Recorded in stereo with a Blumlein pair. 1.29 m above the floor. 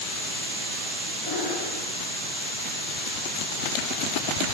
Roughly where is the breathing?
Ahead left.